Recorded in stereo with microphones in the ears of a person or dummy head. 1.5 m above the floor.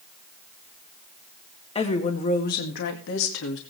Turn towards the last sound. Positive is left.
turn(degrees=80)